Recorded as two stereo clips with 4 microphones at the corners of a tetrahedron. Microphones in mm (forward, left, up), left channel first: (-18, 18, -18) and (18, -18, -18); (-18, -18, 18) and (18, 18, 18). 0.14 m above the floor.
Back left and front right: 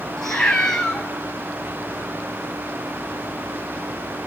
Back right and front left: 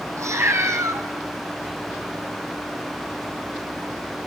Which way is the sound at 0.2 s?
55° left.